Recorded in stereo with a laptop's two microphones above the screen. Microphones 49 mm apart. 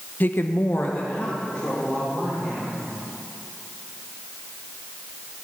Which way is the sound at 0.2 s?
40° left (ahead or behind).